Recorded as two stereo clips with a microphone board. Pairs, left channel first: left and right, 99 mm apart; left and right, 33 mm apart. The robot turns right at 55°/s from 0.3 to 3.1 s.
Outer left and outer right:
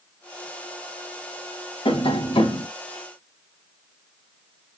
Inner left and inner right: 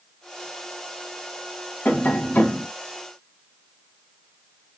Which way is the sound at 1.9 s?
70° left.